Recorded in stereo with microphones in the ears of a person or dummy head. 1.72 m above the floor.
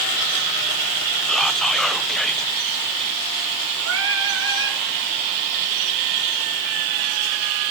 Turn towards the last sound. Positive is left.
turn(degrees=-70)  # may be behind; listen again after turning